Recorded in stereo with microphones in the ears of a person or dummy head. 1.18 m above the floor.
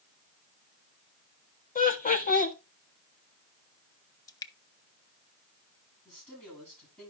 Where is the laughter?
35° left (ahead or behind), 1.6 m.